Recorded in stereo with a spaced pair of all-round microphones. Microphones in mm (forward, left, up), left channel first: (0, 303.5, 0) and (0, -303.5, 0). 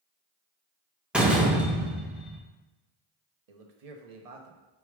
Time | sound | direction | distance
1.1 | a door slam | centre (ahead or behind) | 0.6 m
3.5 | a man speaking | 75° right (ahead or behind) | 0.7 m